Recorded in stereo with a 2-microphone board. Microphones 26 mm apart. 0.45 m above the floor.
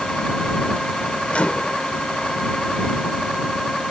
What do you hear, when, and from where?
1.3 s a microwave: 55° left (ahead or behind)